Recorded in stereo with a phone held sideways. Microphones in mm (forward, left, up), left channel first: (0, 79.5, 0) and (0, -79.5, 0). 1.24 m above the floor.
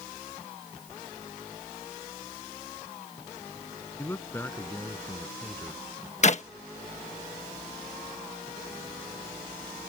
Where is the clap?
50° left (ahead or behind).